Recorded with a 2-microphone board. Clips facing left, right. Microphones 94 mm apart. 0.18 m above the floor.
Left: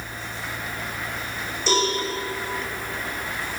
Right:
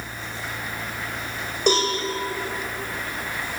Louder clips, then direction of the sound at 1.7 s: Right 2 dB; 60° right (ahead or behind).